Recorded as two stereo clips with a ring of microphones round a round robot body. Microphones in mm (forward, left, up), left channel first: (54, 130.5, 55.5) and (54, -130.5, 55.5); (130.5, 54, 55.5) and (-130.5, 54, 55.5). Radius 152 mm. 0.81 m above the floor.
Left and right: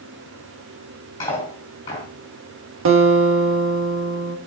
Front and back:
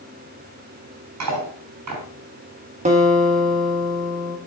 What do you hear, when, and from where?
1.2 s cutlery clinking: 170° left, 5 m
2.9 s a guitar: 120° right, 1.4 m